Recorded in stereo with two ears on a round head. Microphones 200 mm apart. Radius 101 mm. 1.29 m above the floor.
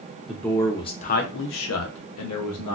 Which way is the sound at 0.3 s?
Centre (ahead or behind).